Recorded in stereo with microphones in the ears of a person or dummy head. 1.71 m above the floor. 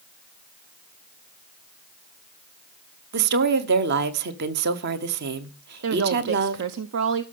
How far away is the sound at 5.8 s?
About 0.6 m.